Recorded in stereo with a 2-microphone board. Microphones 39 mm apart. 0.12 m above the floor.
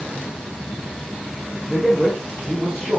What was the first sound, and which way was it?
A man speaking, 25° right (ahead or behind).